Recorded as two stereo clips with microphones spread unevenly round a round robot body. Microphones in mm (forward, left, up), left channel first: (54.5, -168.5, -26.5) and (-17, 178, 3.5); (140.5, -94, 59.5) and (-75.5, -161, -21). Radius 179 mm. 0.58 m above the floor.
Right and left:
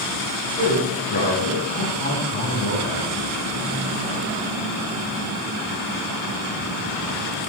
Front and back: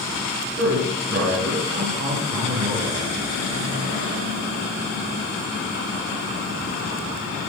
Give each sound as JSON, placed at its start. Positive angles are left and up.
{"t": 0.6, "sound": "a man speaking", "azimuth_deg": -145, "distance_m": 9.0}